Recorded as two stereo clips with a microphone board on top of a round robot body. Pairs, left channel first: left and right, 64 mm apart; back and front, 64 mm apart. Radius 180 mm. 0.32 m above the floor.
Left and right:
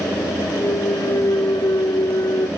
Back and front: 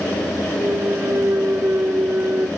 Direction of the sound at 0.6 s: 60° left.